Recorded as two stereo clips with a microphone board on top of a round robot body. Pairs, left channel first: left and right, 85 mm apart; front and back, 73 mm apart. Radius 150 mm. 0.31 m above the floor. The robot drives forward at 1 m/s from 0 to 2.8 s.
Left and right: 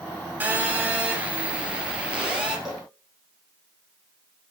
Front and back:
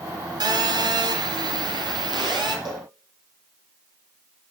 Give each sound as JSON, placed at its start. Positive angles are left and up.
{"t": 0.4, "sound": "a phone buzzing", "azimuth_deg": -160, "distance_m": 2.5}
{"t": 2.6, "sound": "a cowbell", "azimuth_deg": -175, "distance_m": 4.5}